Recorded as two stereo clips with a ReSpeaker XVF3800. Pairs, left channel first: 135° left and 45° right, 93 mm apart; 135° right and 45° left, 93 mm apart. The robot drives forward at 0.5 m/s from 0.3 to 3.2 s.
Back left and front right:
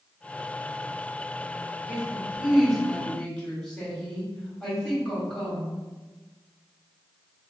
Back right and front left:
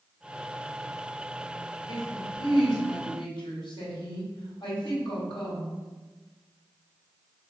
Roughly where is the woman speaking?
Behind right.